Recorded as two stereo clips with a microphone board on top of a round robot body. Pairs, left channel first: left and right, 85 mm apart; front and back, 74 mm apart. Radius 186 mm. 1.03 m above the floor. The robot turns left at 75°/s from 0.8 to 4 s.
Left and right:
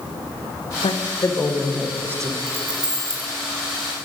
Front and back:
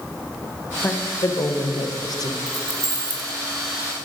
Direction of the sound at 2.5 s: 105° right.